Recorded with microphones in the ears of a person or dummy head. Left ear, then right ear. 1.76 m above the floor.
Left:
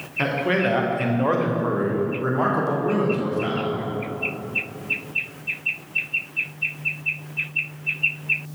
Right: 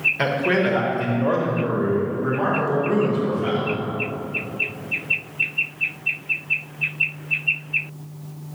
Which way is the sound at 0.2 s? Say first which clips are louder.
Right 2 dB; 5° right (ahead or behind).